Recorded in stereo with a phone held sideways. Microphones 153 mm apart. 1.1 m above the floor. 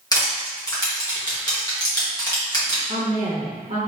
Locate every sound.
0.1 s crushing: 25° left (ahead or behind), 1.7 m
2.9 s a woman speaking: 40° right (ahead or behind), 0.8 m